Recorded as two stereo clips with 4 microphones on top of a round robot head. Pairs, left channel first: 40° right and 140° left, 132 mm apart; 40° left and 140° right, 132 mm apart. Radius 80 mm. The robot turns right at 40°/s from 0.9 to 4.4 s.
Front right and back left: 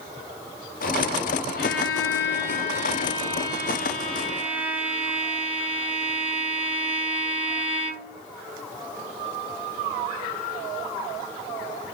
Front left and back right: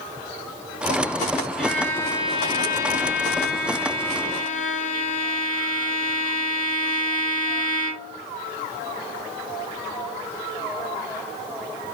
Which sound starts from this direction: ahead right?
A violin, at 1.6 s.